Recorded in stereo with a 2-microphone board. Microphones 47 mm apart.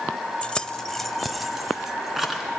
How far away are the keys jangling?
About 0.6 m.